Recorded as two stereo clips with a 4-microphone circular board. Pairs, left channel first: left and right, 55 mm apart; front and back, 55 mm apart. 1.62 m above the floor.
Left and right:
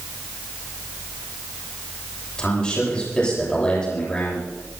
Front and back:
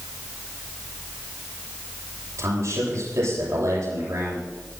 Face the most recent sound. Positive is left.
turn(degrees=160)